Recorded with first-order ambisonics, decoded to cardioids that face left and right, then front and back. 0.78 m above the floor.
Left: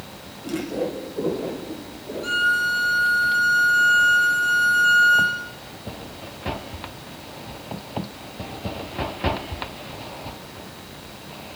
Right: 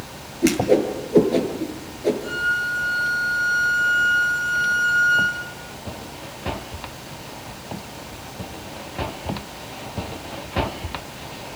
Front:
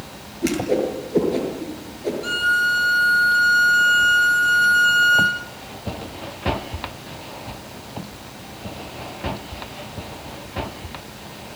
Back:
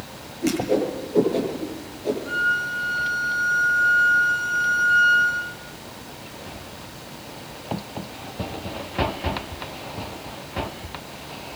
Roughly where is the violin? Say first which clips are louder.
Left 8 dB, front 5 dB; ahead left.